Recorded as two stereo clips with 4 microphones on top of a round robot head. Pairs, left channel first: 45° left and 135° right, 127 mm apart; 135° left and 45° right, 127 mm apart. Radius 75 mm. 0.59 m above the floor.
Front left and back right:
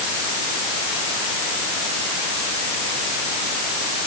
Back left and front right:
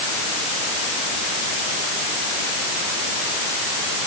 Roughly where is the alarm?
No alarm in this recording.